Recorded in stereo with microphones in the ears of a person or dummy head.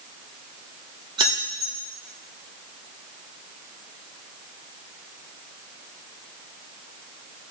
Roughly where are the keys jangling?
Right.